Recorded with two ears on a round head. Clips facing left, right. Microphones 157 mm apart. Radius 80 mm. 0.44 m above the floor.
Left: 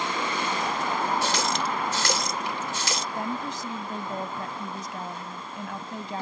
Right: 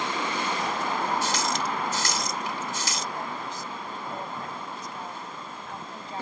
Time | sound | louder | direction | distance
1.2 | a running tap | left 1 dB | 45° left (ahead or behind) | ?
3.1 | a woman speaking | left 3 dB | 60° left (ahead or behind) | ?